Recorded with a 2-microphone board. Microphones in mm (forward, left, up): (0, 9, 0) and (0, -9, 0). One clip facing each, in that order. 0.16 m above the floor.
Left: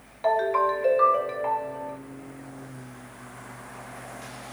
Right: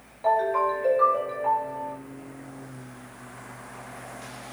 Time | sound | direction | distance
0.2 | a ringtone | 45° left (ahead or behind) | 1.0 m